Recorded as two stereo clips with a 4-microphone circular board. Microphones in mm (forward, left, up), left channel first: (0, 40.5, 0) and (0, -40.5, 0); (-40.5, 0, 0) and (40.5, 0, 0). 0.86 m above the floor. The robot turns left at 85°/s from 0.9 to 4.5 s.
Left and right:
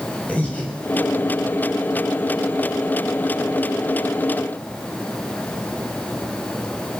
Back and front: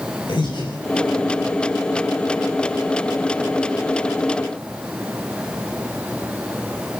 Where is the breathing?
165° left, 6.5 m.